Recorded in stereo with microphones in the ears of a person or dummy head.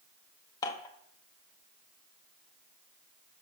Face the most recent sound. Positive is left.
turn(degrees=20)  # may be behind; listen again after turning